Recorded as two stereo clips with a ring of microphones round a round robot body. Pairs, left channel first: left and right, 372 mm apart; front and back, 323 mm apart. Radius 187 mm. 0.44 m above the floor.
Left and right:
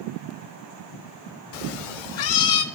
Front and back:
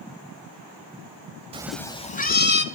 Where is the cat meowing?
105° left, 0.6 m; by 2.6 s 60° left, 1.4 m.